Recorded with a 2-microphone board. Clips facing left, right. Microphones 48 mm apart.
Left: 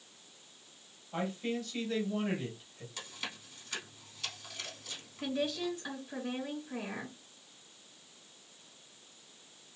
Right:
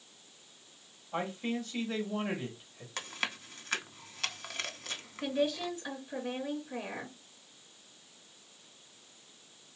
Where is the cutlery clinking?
I don't hear cutlery clinking.